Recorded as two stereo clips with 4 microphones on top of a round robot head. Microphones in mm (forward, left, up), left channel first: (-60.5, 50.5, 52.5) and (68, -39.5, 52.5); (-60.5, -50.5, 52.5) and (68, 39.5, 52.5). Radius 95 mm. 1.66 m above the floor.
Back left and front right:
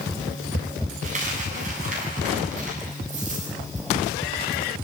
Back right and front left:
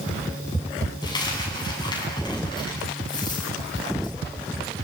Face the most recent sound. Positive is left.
turn(degrees=-80)